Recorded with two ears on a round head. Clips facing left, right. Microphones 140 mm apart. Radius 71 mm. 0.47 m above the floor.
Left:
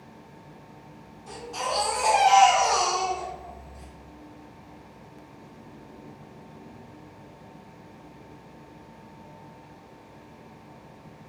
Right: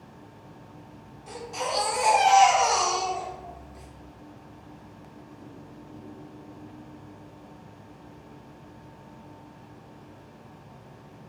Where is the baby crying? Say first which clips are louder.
Even; 10° right (ahead or behind), 0.9 m.